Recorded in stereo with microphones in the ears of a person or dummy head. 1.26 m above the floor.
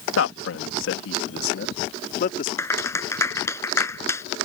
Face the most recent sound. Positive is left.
turn(degrees=15)  # may be behind; listen again after turning